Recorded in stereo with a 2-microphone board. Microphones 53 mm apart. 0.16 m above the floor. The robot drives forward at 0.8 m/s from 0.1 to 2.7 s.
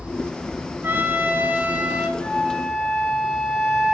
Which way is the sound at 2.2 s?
10° left (ahead or behind).